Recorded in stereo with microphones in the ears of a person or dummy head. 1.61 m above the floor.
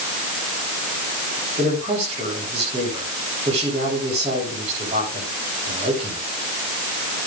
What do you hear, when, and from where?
1.6 s a man speaking: 30° right (ahead or behind), 10 m